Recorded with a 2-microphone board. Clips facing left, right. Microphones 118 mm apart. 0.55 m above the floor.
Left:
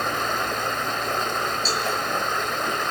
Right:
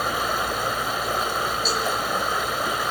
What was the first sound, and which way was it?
Running water, 10° right (ahead or behind).